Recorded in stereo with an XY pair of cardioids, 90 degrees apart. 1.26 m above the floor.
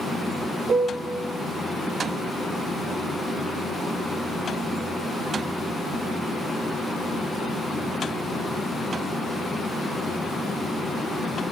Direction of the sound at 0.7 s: 45° right.